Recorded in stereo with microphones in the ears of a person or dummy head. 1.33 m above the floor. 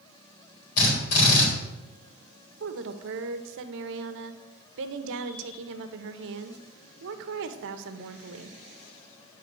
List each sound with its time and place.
0.8 s a drill: 60° left (ahead or behind), 3.5 m
2.6 s a woman speaking: 70° right (ahead or behind), 0.8 m